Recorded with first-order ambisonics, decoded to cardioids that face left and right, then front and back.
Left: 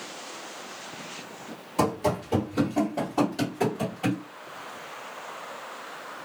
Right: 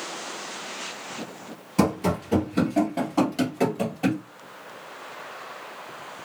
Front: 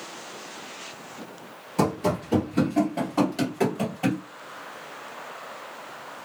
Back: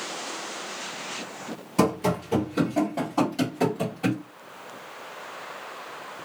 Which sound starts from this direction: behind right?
Running footsteps, at 1.8 s.